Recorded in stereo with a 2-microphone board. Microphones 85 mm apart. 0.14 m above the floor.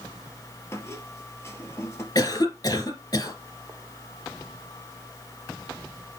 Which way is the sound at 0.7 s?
30° left (ahead or behind).